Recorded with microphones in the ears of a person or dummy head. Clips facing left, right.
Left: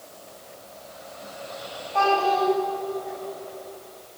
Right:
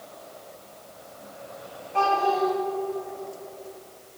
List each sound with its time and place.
1.9 s a child speaking: 35° right (ahead or behind), 2 m